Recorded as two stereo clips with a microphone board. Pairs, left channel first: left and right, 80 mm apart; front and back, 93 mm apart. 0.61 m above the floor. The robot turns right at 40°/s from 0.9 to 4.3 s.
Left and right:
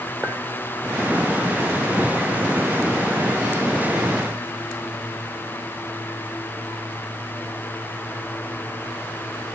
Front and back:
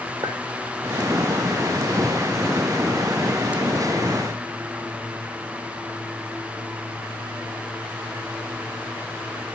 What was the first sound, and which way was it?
A clink, 155° right.